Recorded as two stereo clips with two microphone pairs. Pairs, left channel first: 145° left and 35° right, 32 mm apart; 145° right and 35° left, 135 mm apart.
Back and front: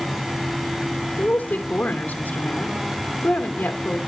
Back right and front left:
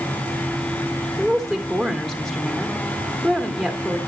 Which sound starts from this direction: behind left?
A woman speaking, at 1.2 s.